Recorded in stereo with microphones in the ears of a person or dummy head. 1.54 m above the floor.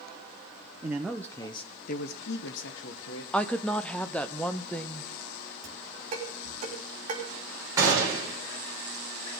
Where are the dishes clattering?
45° right (ahead or behind), 3 m.